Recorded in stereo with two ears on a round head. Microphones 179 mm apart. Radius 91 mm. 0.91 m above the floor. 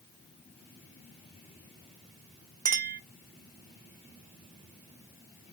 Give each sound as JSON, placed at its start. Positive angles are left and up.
{"t": 2.6, "sound": "a clink", "side_deg": -40, "distance_m": 0.6}